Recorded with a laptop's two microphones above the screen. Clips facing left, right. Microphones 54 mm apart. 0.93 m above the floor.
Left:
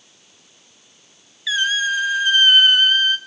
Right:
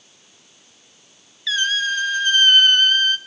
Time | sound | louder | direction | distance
1.5 | a squeak | left 1 dB | 5° left (ahead or behind) | 0.6 m